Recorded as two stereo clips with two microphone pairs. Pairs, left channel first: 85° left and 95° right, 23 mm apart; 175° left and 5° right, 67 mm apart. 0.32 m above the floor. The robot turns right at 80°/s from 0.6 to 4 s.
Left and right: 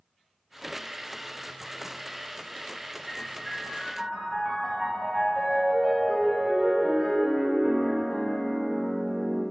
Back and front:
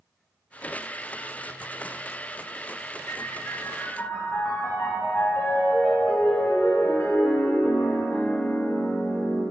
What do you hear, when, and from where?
3.1 s a piano: 140° left, 2.5 m; by 9.4 s 145° right, 2.5 m